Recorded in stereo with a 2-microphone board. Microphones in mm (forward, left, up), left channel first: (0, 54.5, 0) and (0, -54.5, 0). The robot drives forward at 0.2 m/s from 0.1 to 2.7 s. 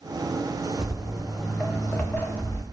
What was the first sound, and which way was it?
Footsteps, 5° right (ahead or behind).